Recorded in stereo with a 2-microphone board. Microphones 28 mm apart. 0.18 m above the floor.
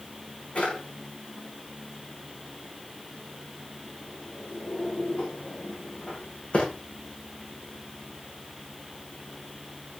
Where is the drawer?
50° left (ahead or behind), 6.5 m.